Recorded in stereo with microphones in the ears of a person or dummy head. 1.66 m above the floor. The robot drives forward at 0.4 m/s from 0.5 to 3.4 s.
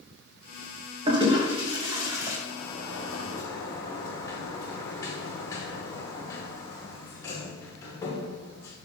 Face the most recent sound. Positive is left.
turn(degrees=15)  # may be behind; listen again after turning